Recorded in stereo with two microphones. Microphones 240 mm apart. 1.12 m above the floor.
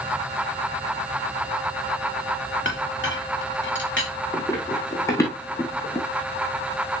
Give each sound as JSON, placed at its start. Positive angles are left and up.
{"t": 2.6, "sound": "a clink", "side_deg": 50, "distance_m": 2.5}
{"t": 4.3, "sound": "running footsteps", "side_deg": 10, "distance_m": 6.0}